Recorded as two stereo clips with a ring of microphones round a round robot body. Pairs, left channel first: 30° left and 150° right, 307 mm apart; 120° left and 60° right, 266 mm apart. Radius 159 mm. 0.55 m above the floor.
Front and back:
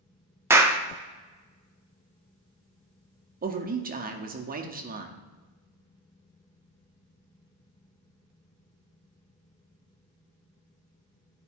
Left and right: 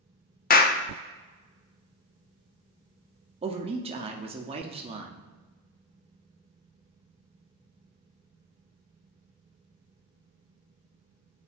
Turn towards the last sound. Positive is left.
turn(degrees=-110)